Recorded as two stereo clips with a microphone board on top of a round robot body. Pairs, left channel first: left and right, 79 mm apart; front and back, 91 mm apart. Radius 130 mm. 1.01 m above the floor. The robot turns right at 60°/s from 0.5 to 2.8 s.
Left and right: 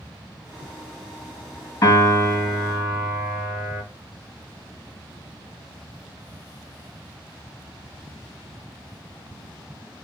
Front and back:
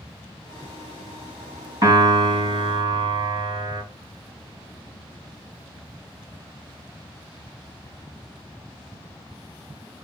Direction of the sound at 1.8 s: 130° left.